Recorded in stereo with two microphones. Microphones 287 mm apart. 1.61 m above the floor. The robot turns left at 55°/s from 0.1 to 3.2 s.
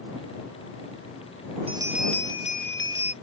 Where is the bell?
160° right; by 3.1 s 120° left.